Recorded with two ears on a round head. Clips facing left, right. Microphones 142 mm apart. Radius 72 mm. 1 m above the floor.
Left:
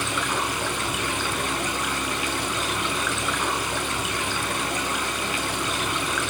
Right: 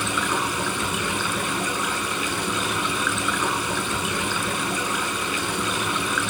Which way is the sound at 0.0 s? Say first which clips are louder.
Right 2 dB; 90° right.